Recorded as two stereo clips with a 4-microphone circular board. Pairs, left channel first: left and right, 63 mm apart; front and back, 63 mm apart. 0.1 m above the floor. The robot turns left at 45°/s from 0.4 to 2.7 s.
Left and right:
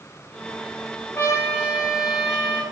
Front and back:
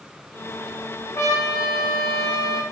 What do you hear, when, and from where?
1.1 s a trumpet: 45° left, 7.5 m; by 2.6 s 20° right, 7.5 m